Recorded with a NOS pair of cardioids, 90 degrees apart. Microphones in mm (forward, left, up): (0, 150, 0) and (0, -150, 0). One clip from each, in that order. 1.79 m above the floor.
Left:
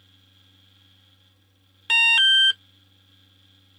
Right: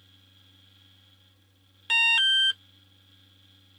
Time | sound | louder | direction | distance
0.0 | a fan | left 1 dB | 15° left | ?
1.9 | an alarm | left 5 dB | 25° left | ?